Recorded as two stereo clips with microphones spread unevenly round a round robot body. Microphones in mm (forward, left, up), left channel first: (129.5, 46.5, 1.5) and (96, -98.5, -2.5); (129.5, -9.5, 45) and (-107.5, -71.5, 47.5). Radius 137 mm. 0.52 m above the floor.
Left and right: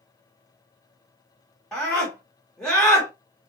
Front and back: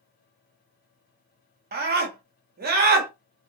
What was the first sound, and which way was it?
A scream, 165° left.